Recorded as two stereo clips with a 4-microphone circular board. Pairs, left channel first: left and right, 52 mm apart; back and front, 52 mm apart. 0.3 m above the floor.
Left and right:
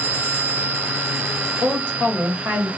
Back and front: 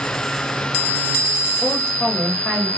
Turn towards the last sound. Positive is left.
turn(degrees=-120)